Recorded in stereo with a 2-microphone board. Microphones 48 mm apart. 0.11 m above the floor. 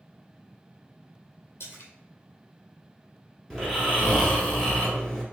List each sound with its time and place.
1.6 s a splash: 70° left (ahead or behind), 1.0 m
3.5 s snoring: 5° left (ahead or behind), 1.3 m